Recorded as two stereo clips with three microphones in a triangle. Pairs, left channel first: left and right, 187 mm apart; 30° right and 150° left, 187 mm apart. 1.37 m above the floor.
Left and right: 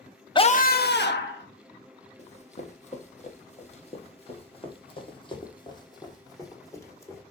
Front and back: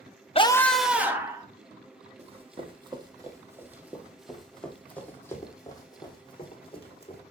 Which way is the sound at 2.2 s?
115° left.